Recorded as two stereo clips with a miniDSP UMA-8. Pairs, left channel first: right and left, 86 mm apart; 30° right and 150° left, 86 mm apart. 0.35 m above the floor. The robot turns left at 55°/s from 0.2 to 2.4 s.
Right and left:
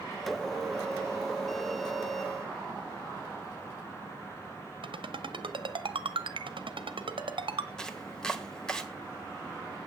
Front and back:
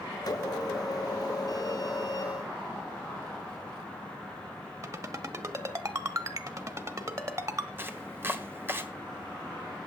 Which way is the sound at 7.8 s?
165° right.